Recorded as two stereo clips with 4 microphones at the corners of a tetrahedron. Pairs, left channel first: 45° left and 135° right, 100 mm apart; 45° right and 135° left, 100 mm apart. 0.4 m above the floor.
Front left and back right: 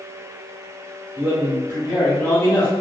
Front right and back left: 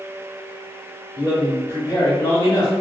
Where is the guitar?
I don't hear a guitar.